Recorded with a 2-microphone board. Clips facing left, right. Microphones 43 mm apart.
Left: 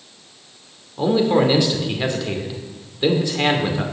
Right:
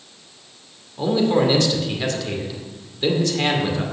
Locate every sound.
1.0 s a man speaking: 15° left (ahead or behind), 2.5 m